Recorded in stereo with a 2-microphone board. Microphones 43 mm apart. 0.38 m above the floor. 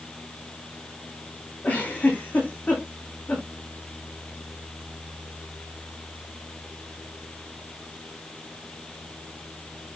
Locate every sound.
1.6 s a giggle: 35° left (ahead or behind), 4 m